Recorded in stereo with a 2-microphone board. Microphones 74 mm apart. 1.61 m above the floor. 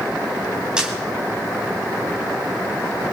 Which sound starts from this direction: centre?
A camera shutter, at 0.8 s.